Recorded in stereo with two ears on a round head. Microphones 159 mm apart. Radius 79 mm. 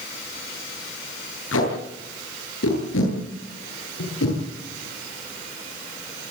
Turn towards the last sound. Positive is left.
turn(degrees=80)